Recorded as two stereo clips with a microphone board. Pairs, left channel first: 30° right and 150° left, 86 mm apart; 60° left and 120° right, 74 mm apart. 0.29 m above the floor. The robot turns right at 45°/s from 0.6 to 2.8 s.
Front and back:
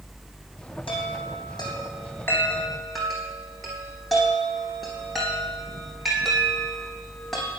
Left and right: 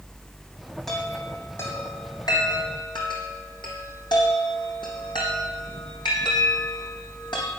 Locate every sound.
0.9 s a chime: 30° right, 3.5 m; by 7.5 s 60° left, 3.5 m